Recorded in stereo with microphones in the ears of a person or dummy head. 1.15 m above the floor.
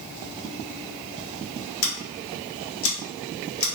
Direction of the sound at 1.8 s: 70° left (ahead or behind).